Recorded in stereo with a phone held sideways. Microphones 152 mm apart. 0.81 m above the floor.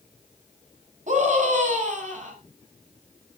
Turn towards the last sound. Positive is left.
turn(degrees=-55)  # may be behind; listen again after turning